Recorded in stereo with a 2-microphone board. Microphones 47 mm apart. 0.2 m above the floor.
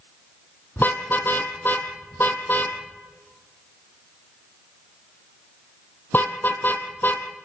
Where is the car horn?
45° left (ahead or behind), 2.5 m.